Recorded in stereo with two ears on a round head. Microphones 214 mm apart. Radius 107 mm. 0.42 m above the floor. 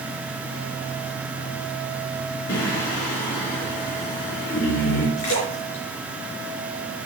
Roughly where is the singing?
Left.